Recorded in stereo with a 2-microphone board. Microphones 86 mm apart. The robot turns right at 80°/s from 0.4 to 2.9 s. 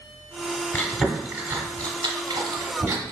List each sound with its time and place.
0.7 s chewing: 25° left (ahead or behind), 0.9 m; by 3.1 s 30° right (ahead or behind), 0.9 m